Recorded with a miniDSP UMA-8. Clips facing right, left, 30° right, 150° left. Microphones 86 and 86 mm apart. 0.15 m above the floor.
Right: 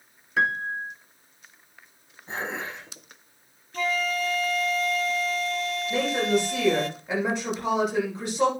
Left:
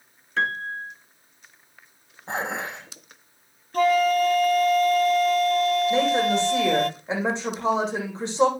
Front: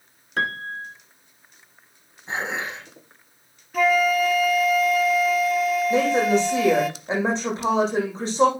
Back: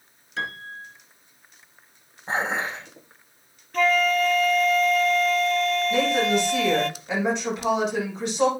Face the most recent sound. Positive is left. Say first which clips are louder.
# left 3 dB, front 3 dB
turn(degrees=25)